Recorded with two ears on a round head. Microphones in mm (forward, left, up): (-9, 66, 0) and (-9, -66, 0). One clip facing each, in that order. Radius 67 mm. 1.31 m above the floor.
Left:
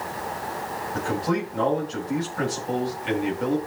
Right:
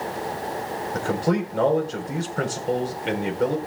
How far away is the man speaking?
About 4 m.